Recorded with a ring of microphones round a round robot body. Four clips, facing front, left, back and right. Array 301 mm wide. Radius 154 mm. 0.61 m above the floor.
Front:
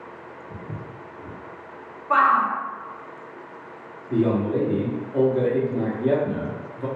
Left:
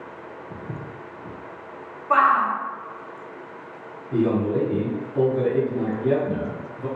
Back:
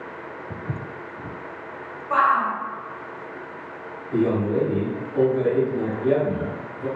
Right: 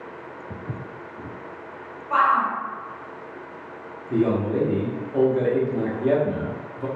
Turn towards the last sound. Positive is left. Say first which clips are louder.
# even, even
turn(degrees=-65)